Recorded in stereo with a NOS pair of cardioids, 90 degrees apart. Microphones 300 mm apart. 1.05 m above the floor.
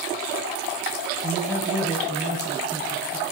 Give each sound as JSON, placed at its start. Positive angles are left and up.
{"t": 1.2, "sound": "a man speaking", "azimuth_deg": -5, "distance_m": 5.5}